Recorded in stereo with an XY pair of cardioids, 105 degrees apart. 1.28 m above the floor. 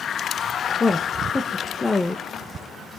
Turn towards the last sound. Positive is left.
turn(degrees=20)